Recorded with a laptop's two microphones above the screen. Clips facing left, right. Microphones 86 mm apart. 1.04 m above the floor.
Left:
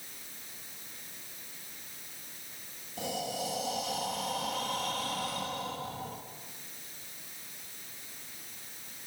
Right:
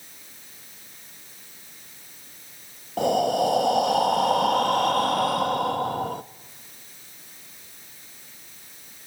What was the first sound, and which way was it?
Breathing, 60° right (ahead or behind).